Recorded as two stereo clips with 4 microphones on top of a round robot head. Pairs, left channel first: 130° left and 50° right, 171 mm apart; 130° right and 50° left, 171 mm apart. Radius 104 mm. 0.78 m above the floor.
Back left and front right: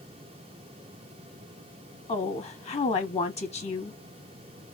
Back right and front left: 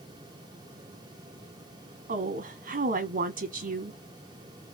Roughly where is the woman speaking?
Left.